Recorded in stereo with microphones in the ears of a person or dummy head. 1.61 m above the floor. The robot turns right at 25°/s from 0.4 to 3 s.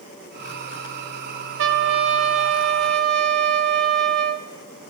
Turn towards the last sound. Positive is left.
turn(degrees=-65)